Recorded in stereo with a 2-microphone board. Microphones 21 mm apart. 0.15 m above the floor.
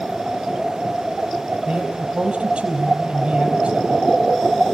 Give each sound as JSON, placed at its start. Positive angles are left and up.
{"t": 1.6, "sound": "a man speaking", "side_deg": -70, "distance_m": 4.0}